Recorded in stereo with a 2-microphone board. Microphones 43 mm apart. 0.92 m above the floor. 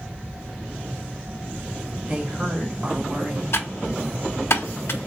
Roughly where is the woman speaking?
Right.